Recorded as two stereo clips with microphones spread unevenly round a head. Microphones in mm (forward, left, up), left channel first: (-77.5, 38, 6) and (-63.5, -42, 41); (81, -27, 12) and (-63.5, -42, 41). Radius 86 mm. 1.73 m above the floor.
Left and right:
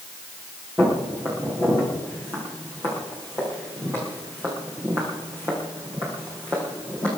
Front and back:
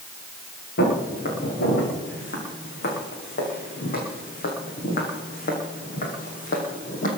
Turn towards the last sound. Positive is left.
turn(degrees=-25)